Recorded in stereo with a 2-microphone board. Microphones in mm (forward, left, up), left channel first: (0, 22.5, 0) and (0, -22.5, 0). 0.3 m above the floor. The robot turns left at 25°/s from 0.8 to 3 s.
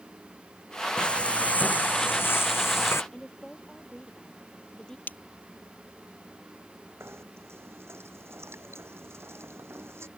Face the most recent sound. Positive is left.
turn(degrees=-75)  # may be behind; listen again after turning